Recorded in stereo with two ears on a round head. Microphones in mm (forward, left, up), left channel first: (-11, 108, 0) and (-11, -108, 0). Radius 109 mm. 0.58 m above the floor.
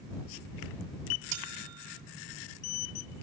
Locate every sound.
1.3 s a bell: 80° right